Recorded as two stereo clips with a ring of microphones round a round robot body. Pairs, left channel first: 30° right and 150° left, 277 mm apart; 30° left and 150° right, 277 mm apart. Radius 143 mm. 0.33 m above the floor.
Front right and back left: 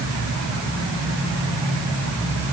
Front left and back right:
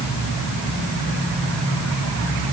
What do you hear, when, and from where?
Only background noise.